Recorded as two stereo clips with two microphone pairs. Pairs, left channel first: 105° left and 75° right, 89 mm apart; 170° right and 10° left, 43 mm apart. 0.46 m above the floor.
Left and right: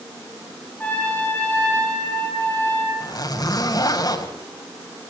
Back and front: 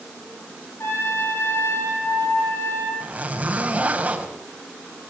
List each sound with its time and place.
0.8 s a trumpet: straight behind, 8 m
3.0 s a zipper: 70° left, 3.5 m